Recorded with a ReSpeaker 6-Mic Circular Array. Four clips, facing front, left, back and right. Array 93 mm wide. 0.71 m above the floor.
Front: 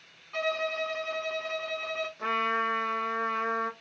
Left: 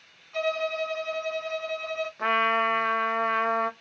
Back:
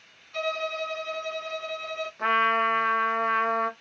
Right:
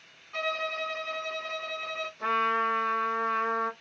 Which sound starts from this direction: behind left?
A trumpet, at 2.2 s.